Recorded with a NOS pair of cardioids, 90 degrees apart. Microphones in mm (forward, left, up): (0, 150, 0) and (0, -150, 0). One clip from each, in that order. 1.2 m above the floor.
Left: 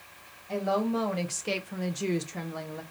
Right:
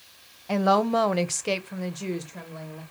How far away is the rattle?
I don't hear a rattle.